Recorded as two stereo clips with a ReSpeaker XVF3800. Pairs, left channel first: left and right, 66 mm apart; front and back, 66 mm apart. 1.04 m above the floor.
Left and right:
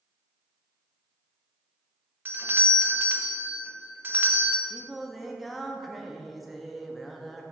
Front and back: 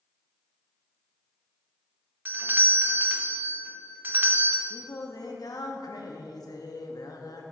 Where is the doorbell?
135° right, 0.7 m.